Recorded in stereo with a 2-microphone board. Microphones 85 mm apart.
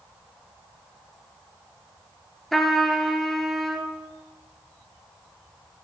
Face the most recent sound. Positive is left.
turn(degrees=5)  # may be behind; listen again after turning